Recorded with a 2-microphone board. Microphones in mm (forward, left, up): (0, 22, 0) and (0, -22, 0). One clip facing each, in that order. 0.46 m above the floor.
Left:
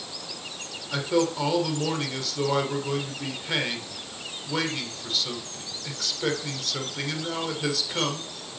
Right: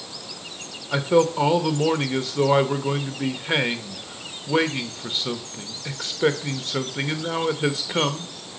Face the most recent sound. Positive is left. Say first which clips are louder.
# right 5 dB
turn(degrees=-25)  # may be behind; listen again after turning